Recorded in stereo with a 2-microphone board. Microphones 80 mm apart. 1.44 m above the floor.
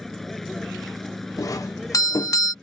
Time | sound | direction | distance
0.0 | a vehicle | 5° left (ahead or behind) | ?
1.4 | a doorbell | 45° left (ahead or behind) | ?